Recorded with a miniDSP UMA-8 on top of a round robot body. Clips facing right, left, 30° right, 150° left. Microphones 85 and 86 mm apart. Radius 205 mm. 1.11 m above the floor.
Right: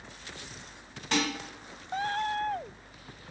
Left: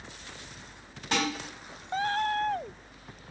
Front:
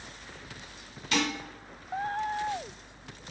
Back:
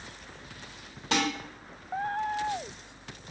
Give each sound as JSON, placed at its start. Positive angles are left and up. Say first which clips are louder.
{"t": 1.1, "sound": "dishes clattering", "louder": "even, back 1 dB", "azimuth_deg": 170, "distance_m": 1.4}